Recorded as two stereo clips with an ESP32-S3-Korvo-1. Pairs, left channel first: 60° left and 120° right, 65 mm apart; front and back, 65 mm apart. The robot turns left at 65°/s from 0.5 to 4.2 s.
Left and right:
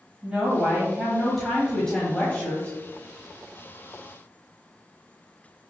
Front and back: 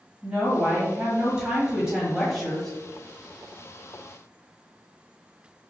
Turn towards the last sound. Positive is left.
turn(degrees=-35)